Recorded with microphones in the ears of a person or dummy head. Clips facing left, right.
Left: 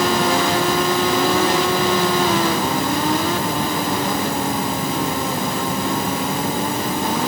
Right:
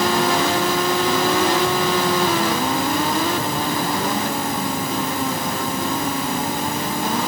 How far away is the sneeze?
No sneeze in this recording.